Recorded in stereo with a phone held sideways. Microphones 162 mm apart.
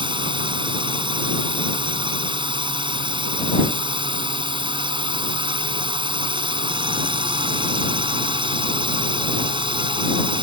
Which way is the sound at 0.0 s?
30° right (ahead or behind).